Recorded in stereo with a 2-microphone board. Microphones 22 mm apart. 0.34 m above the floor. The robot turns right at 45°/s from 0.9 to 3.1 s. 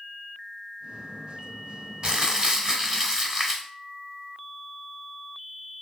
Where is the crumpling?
80° right, 1.0 m; by 3.7 s 30° right, 1.0 m.